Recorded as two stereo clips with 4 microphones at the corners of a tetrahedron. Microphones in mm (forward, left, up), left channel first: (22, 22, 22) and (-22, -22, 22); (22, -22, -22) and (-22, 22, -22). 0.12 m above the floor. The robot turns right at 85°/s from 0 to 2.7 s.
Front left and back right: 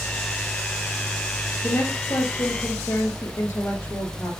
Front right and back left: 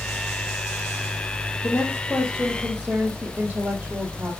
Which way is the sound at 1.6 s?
15° right.